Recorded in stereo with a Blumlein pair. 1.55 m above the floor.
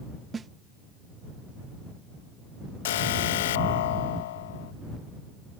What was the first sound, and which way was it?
A snare drum, 15° right.